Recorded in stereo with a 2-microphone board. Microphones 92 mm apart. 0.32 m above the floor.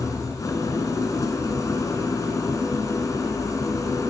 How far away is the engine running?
About 3 m.